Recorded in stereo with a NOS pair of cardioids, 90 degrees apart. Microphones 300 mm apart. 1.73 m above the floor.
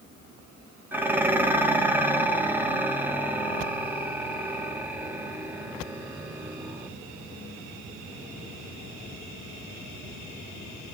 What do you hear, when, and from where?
0.9 s dishes clattering: 5° right, 2.5 m